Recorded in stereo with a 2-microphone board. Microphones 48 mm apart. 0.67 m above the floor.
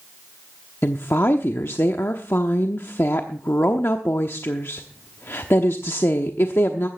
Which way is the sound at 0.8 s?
60° left (ahead or behind).